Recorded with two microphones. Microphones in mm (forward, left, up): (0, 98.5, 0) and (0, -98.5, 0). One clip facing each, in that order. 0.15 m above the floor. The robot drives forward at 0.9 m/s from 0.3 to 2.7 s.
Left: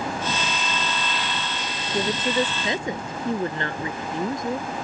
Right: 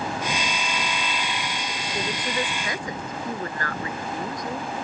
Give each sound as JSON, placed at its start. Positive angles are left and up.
{"t": 1.9, "sound": "a woman speaking", "side_deg": 20}